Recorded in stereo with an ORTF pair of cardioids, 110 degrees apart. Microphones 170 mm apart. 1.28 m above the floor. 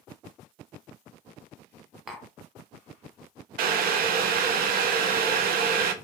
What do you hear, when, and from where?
2.1 s tapping: 5° right, 0.6 m
3.6 s boiling: 65° right, 0.5 m